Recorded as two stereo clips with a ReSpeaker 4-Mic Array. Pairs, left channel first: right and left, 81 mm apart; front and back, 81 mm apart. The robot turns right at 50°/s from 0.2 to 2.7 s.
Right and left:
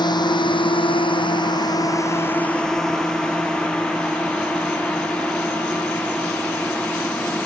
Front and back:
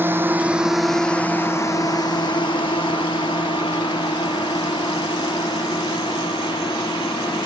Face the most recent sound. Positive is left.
turn(degrees=-15)